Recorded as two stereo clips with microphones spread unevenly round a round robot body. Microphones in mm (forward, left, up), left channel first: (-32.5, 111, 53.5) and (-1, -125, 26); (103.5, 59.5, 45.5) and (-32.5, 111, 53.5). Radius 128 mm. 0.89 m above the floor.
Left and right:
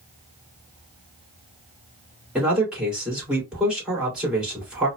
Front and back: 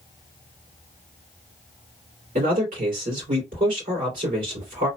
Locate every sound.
2.4 s a man speaking: 165° right, 2.5 m